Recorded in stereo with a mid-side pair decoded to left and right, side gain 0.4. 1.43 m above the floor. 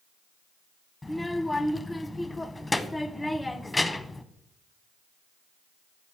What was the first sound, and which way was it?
A child speaking, 15° left.